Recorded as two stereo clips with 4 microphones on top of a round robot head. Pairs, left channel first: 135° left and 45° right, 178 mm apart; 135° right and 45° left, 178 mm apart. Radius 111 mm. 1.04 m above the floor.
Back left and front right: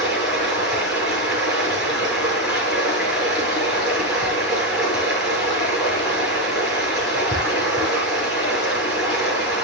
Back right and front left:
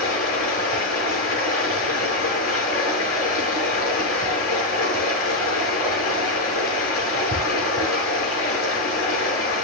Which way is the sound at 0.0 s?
130° right.